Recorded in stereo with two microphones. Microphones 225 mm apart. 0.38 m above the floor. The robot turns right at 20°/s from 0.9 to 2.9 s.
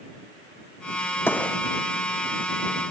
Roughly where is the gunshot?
Centre.